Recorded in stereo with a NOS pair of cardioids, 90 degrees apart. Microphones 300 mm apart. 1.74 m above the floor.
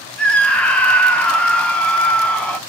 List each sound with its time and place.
0.2 s a scream: 5° left, 0.7 m